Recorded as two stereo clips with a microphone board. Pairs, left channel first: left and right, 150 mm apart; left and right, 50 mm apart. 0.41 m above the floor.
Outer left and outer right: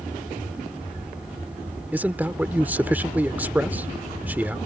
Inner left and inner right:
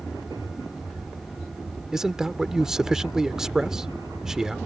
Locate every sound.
1.9 s a man speaking: 10° right (ahead or behind)